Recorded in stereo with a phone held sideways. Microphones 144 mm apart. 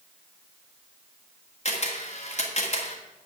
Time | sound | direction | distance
1.6 | a camera shutter | 50° left (ahead or behind) | 1.7 m